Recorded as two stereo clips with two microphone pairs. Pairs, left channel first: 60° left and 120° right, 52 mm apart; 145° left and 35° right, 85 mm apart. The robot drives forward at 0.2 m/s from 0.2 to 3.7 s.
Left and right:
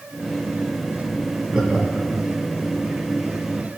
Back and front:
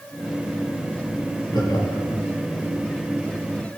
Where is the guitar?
I don't hear a guitar.